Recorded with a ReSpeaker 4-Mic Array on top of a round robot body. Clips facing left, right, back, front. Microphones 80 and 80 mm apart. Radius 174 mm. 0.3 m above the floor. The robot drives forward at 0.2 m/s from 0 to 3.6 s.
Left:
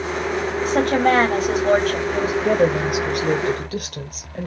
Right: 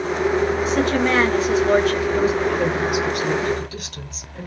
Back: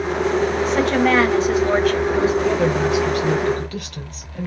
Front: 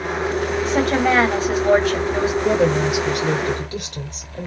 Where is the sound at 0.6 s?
65° left, 2.5 m; by 2.3 s 75° left, 2 m.